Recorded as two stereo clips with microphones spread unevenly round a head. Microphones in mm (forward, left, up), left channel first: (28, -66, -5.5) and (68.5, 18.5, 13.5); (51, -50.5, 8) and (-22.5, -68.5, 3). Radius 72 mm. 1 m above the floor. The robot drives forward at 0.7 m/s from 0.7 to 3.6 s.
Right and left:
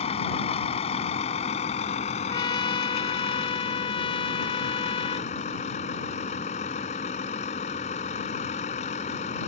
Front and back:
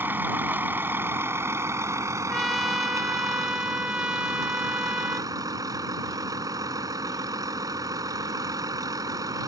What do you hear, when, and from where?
0.0 s a vehicle: 105° right; by 9.5 s 130° right
2.3 s a trumpet: 75° right; by 5.3 s 90° right